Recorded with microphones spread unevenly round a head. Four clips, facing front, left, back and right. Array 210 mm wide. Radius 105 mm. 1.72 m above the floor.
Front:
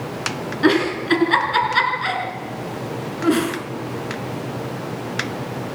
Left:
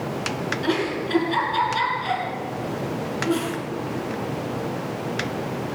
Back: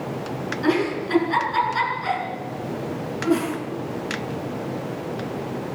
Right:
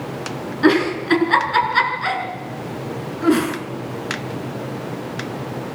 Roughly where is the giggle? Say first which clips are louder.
Right 10 dB, front 5 dB; ahead right.